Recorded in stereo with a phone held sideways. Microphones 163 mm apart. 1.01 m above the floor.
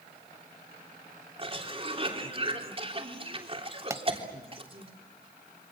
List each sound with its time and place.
1.4 s a cough: 35° right (ahead or behind), 3 m
3.9 s a pop: 20° right (ahead or behind), 0.8 m